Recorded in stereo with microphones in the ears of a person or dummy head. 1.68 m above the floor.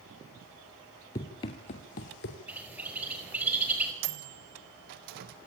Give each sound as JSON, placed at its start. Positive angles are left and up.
{"t": 1.1, "sound": "running footsteps", "side_deg": 20, "distance_m": 1.9}
{"t": 2.5, "sound": "a bird", "side_deg": -10, "distance_m": 5.0}
{"t": 4.0, "sound": "a microwave", "side_deg": -60, "distance_m": 1.5}